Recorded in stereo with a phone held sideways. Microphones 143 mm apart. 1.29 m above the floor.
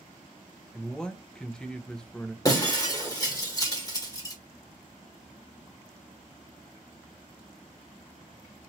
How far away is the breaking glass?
About 1.4 m.